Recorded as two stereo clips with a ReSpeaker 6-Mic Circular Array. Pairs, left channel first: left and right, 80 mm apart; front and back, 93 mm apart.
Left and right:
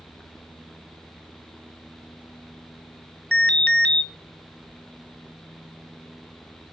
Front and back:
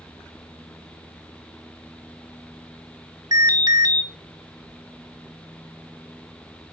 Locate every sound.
3.3 s an alarm: 155° left, 1.1 m